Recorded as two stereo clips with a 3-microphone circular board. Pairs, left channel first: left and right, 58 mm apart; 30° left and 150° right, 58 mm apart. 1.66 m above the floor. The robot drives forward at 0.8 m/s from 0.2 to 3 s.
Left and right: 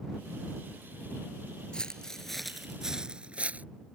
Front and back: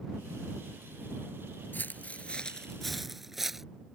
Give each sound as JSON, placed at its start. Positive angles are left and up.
{"t": 1.7, "sound": "footsteps", "azimuth_deg": 30}